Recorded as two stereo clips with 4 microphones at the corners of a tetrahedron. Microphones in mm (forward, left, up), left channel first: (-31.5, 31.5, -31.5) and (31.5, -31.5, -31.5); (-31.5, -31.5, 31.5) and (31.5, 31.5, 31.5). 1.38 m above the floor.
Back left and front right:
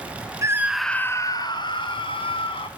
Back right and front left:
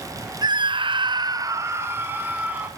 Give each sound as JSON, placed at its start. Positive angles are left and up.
{"t": 0.4, "sound": "a scream", "azimuth_deg": 10, "distance_m": 1.0}